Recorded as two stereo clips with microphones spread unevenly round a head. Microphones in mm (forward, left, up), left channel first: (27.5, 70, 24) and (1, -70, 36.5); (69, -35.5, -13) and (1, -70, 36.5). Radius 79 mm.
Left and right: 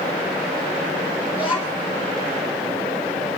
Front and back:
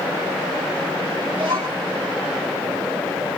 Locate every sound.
1.3 s a child speaking: 135° left, 5.5 m